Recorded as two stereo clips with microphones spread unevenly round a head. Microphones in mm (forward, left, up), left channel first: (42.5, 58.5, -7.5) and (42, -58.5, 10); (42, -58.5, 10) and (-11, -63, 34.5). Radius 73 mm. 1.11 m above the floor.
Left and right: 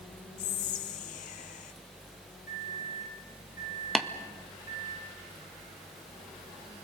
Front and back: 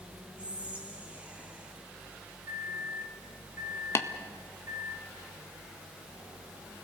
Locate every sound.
0.4 s whispering: 100° left, 1.0 m
2.5 s a microwave: 160° right, 7 m
4.0 s tapping: straight ahead, 1.6 m